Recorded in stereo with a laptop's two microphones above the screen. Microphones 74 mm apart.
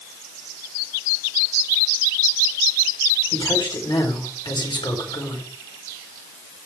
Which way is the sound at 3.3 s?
80° left.